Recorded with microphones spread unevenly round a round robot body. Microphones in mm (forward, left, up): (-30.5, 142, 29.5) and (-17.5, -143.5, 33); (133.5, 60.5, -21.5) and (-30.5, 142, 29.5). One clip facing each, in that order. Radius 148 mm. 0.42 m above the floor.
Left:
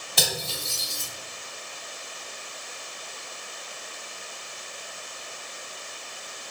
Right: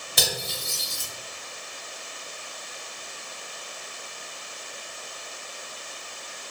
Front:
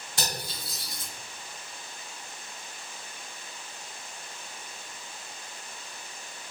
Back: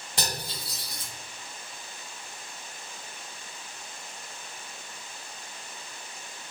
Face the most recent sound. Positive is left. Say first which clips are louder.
# even, back 1 dB
turn(degrees=-160)